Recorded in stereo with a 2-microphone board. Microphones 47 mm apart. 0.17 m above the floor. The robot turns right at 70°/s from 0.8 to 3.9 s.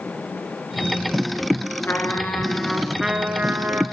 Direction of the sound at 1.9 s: 110° left.